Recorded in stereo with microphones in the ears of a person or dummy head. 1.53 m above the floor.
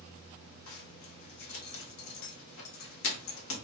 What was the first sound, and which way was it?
A zipper, 80° left.